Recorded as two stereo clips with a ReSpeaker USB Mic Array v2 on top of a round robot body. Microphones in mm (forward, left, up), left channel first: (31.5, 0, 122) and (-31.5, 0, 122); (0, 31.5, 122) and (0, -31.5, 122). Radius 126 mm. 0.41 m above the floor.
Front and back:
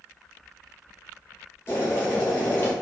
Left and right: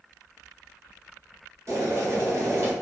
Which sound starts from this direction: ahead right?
Boiling, at 1.7 s.